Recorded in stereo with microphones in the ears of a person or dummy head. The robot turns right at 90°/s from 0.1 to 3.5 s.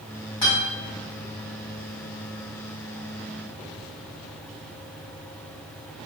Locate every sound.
0.4 s a guitar: 20° left (ahead or behind), 1.9 m; by 0.7 s centre (ahead or behind), 1.9 m